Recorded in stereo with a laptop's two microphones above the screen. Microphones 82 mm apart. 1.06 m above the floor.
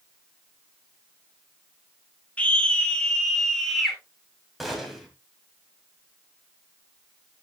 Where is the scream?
15° left (ahead or behind), 2.0 m; by 4.0 s centre (ahead or behind), 2.5 m.